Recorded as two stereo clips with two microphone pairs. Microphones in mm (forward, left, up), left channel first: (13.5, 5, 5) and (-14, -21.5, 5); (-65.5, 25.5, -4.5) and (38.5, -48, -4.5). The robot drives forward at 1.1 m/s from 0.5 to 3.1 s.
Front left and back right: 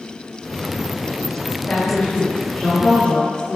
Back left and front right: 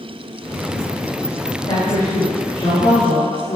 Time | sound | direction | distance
1.7 | a woman speaking | 100° left | 1.7 m